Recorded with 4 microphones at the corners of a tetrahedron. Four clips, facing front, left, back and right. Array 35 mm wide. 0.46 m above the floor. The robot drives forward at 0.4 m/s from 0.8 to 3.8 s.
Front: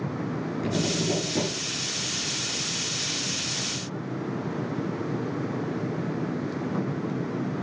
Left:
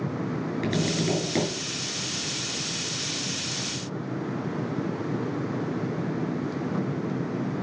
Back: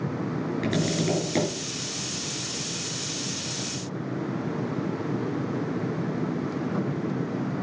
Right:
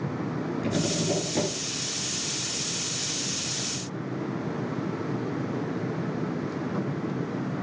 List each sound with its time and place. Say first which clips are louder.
0.6 s tapping: left 1 dB, even; 140° left, 6.5 m